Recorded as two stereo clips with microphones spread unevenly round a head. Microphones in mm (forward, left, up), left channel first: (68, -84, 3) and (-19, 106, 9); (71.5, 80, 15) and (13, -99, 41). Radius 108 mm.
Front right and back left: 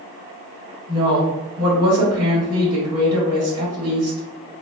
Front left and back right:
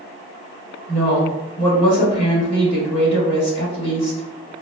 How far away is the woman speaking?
About 1.7 m.